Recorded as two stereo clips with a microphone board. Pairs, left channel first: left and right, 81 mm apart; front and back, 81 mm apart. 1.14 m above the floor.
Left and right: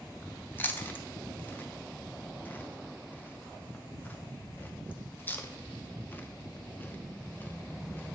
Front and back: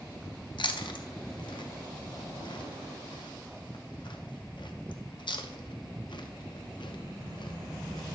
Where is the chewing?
25° left, 0.5 m.